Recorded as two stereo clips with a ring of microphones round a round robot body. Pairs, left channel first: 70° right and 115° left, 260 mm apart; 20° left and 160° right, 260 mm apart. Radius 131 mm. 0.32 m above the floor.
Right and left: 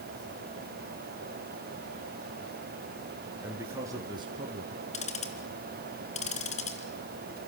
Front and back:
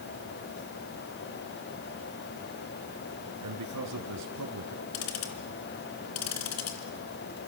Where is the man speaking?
165° right, 4 m; by 4.8 s 175° left, 3.5 m.